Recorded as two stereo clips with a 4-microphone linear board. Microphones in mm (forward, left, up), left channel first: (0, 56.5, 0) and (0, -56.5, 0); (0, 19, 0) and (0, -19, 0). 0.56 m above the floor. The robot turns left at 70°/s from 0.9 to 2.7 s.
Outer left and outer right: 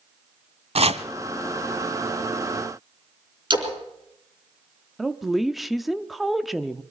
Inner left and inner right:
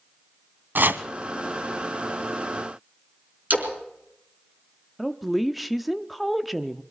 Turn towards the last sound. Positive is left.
turn(degrees=0)  # may be behind; listen again after turning